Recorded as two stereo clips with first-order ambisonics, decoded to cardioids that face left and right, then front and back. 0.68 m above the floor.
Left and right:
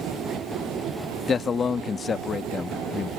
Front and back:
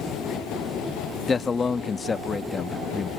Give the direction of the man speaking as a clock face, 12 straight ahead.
10 o'clock.